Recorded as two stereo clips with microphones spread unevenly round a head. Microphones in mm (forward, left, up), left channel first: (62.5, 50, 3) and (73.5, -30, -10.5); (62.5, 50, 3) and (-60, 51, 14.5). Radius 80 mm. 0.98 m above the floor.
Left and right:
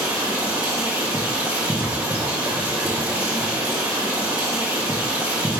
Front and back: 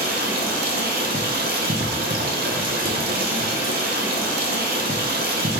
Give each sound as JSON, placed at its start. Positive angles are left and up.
{"t": 0.0, "sound": "running water", "azimuth_deg": -160, "distance_m": 0.7}